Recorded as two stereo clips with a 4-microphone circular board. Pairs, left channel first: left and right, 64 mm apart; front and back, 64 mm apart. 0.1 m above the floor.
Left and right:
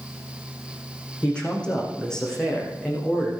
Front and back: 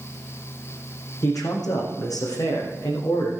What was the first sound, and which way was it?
A man speaking, 15° left.